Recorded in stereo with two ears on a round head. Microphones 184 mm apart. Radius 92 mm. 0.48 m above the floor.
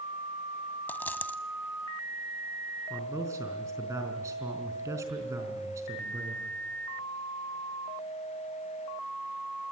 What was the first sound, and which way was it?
A dropped coin, 10° left (ahead or behind).